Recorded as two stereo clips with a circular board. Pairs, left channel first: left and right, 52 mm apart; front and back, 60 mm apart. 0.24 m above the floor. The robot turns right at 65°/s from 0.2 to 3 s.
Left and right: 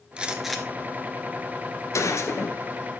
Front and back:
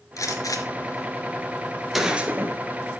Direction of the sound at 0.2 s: 20° right.